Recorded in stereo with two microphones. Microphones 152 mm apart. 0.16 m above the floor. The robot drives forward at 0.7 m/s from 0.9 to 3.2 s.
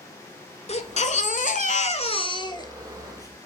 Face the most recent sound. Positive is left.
turn(degrees=20)  # may be behind; listen again after turning